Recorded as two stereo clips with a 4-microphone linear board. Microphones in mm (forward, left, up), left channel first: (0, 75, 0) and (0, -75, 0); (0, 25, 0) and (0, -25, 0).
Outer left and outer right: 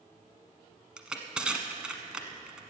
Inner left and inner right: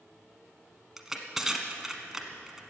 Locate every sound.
1.0 s crushing: 5° right (ahead or behind), 1.3 m